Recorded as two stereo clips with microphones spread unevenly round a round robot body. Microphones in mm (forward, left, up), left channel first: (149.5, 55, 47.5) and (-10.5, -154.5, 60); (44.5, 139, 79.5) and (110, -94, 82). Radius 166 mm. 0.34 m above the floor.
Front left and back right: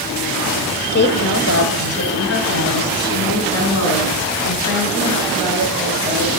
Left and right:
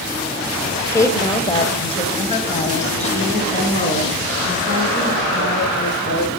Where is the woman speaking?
30° left, 1.3 m; by 6.3 s 50° left, 5.5 m.